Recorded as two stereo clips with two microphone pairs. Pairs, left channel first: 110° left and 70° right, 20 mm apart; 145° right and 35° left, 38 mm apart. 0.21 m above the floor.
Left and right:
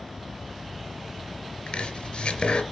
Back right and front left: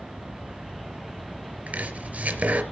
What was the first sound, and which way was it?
Chopping, 80° left.